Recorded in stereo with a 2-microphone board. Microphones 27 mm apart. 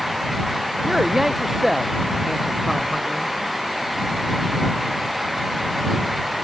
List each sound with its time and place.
0.8 s a man speaking: 10° right (ahead or behind)